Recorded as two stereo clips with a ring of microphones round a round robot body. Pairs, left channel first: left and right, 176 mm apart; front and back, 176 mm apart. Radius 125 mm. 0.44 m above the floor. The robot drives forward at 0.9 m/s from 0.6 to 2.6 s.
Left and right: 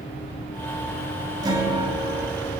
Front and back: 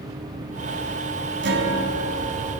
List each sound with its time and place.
1.4 s a guitar: 160° right, 2.5 m; by 2.6 s 170° right, 3.5 m